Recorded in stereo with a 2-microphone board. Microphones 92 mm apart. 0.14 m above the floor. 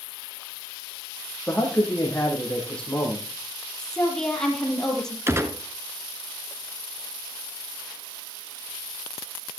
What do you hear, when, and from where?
1.5 s a man speaking: 10° left (ahead or behind), 6.5 m
3.8 s a woman speaking: 5° left (ahead or behind), 5 m
5.3 s a gunshot: 30° right (ahead or behind), 1.5 m